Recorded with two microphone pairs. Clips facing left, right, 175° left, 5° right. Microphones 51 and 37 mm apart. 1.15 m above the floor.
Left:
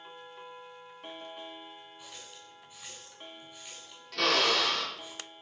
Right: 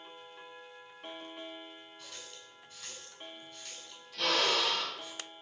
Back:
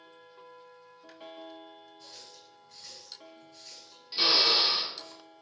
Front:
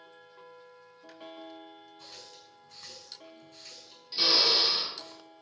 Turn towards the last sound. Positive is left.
turn(degrees=95)